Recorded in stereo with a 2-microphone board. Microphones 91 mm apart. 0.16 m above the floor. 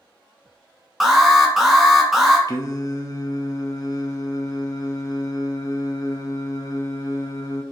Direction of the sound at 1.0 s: 5° right (ahead or behind).